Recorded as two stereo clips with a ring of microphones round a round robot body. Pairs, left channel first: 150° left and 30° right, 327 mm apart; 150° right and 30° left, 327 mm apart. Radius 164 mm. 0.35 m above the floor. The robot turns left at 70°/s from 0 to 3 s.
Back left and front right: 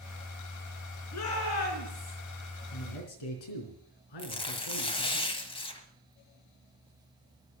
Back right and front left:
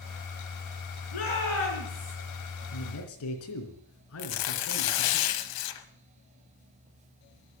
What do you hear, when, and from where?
1.1 s a shout: 165° right, 5.5 m; by 2.2 s 125° left, 5.5 m
2.7 s a man speaking: 175° right, 3.5 m; by 5.2 s 165° left, 3.5 m
4.2 s tearing paper: 135° right, 1.2 m